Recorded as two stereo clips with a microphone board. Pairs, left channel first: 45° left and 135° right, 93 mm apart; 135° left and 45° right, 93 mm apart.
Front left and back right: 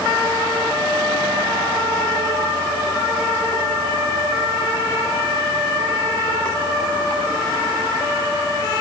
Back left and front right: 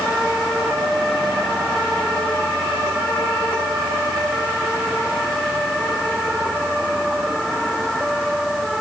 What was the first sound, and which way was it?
Only background noise.